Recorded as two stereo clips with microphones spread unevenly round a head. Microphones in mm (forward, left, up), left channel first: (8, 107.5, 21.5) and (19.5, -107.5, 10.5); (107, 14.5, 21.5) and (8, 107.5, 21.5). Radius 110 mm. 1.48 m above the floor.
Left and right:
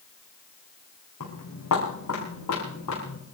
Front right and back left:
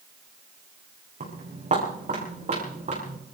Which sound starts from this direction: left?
Footsteps, at 1.2 s.